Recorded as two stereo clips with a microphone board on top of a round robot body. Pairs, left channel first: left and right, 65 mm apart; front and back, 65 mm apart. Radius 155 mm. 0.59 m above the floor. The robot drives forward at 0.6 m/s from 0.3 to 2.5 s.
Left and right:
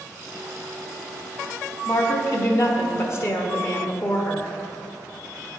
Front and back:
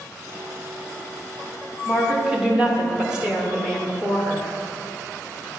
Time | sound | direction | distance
1.9 | a woman speaking | 80° left | 1.2 m